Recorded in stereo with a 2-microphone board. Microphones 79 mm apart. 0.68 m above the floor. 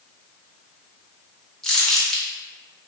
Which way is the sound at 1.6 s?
5° left (ahead or behind).